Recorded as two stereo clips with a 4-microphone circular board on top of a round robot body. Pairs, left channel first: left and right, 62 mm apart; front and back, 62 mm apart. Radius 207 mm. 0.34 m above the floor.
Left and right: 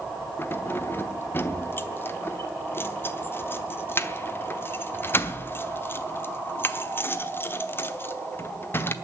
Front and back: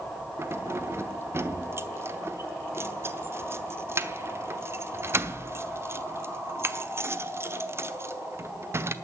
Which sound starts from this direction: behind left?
Keys jangling, at 0.4 s.